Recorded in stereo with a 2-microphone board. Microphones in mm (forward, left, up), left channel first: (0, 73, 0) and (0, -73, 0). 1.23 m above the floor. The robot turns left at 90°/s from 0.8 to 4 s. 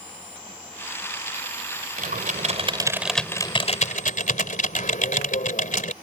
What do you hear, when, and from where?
2.0 s typing on a keyboard: 75° right; by 5.9 s 100° left